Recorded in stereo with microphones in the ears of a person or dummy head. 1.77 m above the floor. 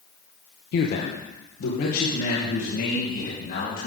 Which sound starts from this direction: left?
A man speaking, at 0.7 s.